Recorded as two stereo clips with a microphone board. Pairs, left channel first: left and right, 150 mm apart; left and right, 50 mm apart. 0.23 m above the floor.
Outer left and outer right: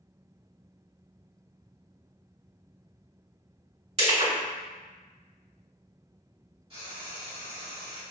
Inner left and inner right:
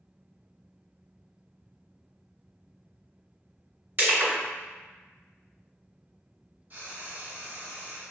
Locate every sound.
4.0 s crushing: 45° right (ahead or behind), 1.9 m
6.7 s frying: 40° right (ahead or behind), 1.8 m